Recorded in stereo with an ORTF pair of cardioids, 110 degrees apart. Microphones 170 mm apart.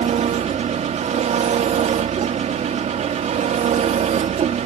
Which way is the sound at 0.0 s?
45° right.